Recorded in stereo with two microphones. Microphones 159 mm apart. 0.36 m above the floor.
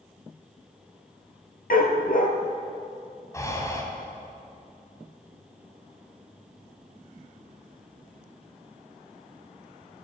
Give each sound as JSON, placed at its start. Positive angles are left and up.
{"t": 1.7, "sound": "a dog barking", "side_deg": 65, "distance_m": 1.7}
{"t": 3.3, "sound": "breathing", "side_deg": 20, "distance_m": 2.5}